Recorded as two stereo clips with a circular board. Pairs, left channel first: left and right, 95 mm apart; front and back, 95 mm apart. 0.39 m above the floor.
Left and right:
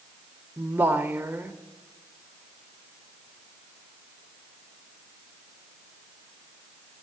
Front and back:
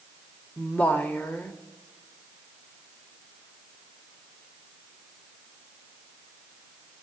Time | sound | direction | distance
0.6 | a woman speaking | 50° right | 0.9 m